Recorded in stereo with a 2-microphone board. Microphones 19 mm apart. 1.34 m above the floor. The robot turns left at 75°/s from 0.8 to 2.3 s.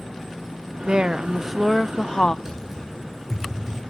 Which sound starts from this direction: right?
Typing on a keyboard, at 2.5 s.